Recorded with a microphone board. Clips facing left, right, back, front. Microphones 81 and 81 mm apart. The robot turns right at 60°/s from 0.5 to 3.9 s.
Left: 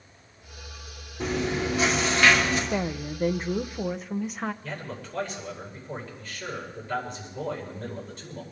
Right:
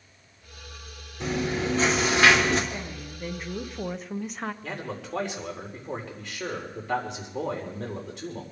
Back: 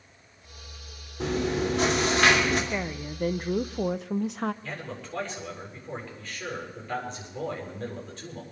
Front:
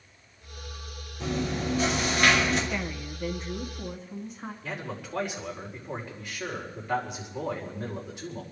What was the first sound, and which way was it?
Chewing, 135° left.